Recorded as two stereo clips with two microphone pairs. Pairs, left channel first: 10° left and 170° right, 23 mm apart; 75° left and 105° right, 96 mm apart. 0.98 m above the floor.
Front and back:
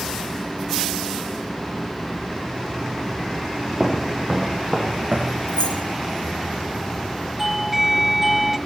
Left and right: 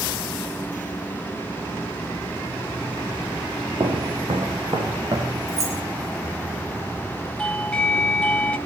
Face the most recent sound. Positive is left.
turn(degrees=125)